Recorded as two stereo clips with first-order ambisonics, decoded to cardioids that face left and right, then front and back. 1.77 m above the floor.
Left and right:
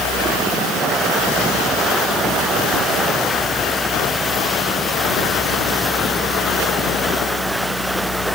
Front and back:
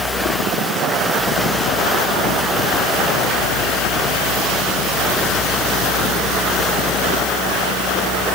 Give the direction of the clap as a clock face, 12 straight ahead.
I don't hear a clap.